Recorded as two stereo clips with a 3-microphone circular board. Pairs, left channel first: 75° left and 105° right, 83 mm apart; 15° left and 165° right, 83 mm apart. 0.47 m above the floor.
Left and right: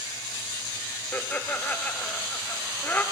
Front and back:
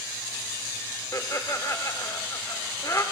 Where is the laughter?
20° left, 1.1 m.